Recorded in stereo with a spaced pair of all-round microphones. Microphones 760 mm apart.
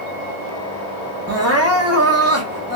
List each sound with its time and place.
1.3 s crying: 20° right (ahead or behind), 0.7 m